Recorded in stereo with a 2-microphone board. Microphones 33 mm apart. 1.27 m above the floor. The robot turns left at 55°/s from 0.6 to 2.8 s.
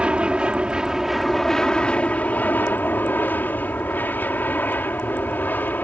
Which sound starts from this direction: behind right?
An aircraft, at 0.0 s.